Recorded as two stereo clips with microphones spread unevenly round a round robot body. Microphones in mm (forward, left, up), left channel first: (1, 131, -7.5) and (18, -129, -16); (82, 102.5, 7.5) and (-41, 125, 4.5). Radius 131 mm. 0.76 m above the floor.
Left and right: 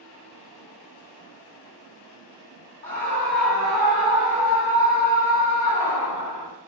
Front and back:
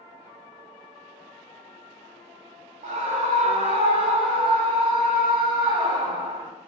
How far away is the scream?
About 2.5 m.